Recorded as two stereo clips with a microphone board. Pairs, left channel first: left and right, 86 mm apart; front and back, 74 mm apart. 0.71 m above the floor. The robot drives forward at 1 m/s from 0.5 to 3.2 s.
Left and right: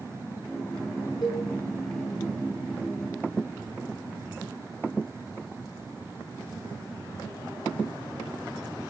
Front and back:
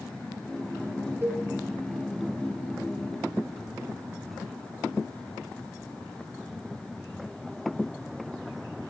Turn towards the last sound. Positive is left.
turn(degrees=165)